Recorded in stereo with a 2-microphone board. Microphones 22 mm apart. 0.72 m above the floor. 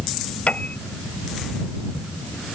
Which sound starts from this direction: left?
A piano, at 0.5 s.